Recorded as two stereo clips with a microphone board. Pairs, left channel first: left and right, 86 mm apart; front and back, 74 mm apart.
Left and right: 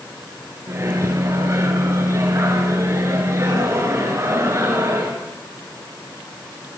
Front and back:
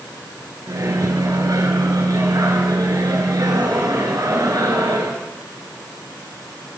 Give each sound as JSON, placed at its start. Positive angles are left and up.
{"t": 0.7, "sound": "a microwave", "azimuth_deg": -145, "distance_m": 5.0}